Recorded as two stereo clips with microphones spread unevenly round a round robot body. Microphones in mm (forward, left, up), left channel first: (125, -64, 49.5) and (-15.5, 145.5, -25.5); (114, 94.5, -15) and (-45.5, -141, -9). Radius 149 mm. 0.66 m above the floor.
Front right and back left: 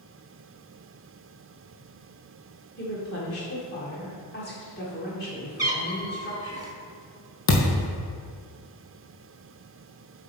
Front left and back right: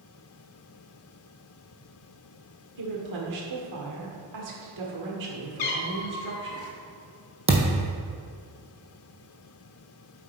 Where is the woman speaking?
120° right, 1.9 m.